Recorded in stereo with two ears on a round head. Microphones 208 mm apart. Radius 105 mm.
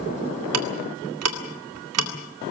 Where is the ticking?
70° right (ahead or behind), 2 m.